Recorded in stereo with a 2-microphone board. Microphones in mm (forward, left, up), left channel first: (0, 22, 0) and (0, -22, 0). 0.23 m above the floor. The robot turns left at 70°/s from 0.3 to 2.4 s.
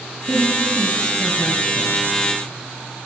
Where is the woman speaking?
30° right (ahead or behind), 1.3 m; by 2.0 s 40° left (ahead or behind), 1.3 m.